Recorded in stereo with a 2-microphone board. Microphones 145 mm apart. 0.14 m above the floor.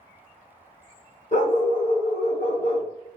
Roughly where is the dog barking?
Left.